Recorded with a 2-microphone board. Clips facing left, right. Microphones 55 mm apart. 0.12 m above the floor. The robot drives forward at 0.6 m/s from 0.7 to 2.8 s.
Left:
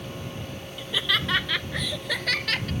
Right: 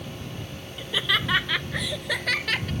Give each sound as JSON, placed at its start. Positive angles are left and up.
{"t": 0.8, "sound": "laughter", "side_deg": -10}